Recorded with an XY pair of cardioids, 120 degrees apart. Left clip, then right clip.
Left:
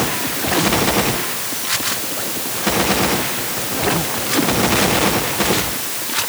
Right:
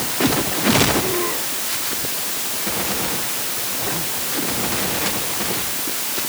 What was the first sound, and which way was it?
Only background noise.